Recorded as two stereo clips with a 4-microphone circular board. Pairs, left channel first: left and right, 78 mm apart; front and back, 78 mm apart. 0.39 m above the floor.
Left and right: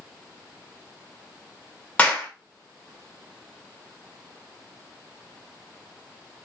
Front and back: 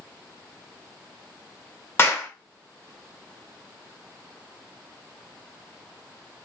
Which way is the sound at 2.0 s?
30° left.